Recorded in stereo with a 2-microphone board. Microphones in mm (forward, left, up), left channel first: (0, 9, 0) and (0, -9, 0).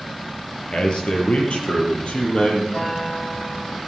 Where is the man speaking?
75° left (ahead or behind), 5 m; by 2.6 s 80° left, 7 m.